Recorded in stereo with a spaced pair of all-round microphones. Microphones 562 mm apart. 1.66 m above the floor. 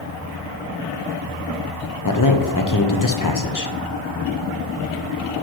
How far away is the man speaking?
About 0.7 m.